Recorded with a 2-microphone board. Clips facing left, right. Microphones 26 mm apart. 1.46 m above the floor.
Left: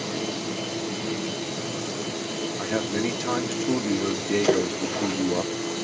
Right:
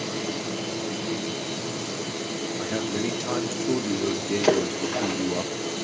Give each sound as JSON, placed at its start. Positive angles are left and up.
{"t": 2.6, "sound": "a man speaking", "side_deg": 15, "distance_m": 1.7}
{"t": 4.4, "sound": "a splash", "side_deg": -65, "distance_m": 7.5}